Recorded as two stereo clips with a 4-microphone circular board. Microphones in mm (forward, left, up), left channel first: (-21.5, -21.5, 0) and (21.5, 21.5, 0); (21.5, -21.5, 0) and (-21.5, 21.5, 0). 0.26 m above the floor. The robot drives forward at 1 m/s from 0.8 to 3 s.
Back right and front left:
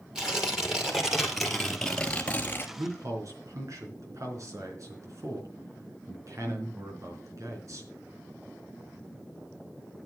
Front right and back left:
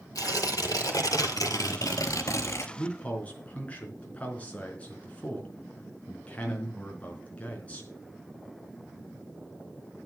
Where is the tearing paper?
35° right, 2.5 m; by 2.7 s 80° right, 1.5 m.